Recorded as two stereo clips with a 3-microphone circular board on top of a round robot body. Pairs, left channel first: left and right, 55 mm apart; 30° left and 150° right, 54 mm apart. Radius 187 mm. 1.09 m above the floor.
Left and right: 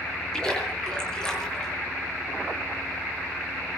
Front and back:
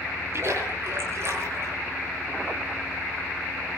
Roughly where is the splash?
Behind.